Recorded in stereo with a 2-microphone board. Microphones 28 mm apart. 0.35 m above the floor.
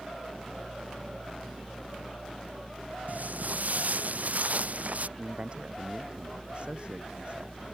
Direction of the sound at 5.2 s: 35° right (ahead or behind).